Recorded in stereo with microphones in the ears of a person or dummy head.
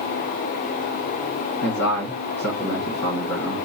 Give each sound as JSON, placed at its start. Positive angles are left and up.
{"t": 1.6, "sound": "a man speaking", "side_deg": 70, "distance_m": 1.6}